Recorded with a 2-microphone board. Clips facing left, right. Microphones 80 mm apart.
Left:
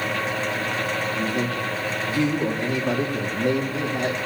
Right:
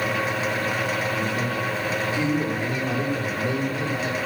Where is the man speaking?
80° left, 3 m.